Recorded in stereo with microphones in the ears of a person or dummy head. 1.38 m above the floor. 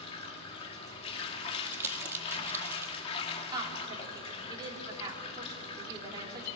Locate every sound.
0.0 s running water: 35° left (ahead or behind), 1.9 m
1.7 s crumpling: 15° right (ahead or behind), 1.5 m
3.5 s a woman speaking: 25° right (ahead or behind), 4 m